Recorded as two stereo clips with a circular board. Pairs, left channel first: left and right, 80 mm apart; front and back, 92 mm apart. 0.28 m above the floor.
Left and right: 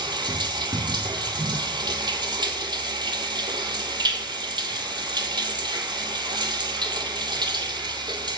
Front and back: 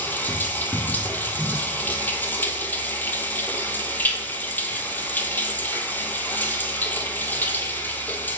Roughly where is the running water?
Right.